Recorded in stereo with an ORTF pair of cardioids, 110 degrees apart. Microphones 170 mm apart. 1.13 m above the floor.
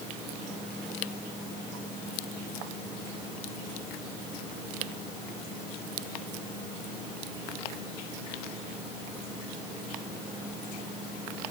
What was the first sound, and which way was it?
Only background noise.